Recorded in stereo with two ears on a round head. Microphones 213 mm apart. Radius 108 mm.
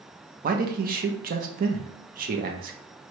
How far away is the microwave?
I don't hear a microwave.